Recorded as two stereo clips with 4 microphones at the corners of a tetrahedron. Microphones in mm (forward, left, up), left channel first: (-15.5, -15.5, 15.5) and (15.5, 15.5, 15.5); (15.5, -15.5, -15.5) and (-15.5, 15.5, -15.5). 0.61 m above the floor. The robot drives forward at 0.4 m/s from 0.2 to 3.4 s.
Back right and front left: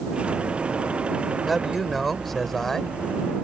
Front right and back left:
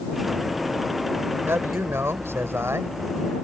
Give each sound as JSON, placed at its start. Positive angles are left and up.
{"t": 1.5, "sound": "a man speaking", "azimuth_deg": 135}